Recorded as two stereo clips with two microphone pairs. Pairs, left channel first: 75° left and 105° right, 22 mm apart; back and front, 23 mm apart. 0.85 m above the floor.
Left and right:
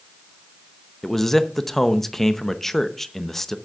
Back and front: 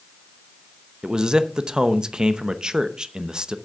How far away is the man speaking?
About 0.7 m.